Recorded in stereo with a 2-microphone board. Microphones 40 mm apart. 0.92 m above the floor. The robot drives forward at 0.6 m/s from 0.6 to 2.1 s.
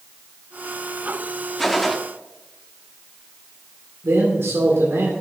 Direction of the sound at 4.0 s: 85° right.